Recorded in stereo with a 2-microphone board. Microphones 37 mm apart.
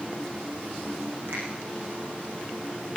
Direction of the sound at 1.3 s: 75° right (ahead or behind).